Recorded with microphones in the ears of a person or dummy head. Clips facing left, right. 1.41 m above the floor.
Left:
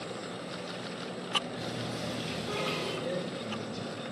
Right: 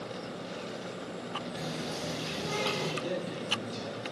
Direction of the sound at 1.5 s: 75° right (ahead or behind).